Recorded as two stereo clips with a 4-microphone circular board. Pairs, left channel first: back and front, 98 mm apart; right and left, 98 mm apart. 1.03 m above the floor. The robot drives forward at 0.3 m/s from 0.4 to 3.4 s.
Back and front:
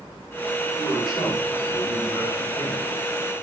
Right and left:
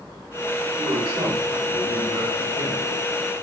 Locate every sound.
0.8 s a man speaking: 90° left, 3.5 m; by 2.9 s 100° left, 3.5 m